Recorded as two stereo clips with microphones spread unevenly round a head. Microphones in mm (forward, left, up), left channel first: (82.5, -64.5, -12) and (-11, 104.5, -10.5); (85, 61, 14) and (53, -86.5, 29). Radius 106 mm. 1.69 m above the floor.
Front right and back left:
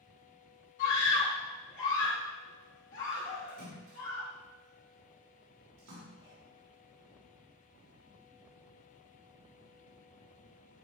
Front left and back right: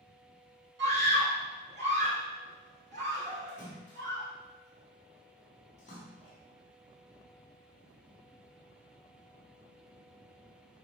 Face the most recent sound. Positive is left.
turn(degrees=140)